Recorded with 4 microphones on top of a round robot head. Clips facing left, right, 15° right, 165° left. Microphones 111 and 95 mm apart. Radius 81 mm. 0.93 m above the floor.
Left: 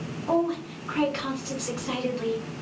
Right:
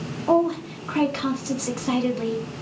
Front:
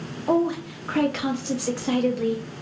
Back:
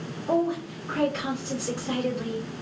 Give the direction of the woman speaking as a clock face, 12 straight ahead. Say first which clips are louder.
Right 5 dB, front 3 dB; 1 o'clock.